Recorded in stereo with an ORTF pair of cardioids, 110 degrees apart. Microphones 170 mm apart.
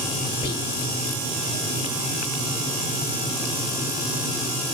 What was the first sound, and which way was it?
Whispering, 30° left.